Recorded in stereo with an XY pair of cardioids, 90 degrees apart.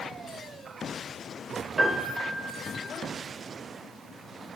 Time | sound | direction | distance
1.8 | a piano | 30° right | 1.9 m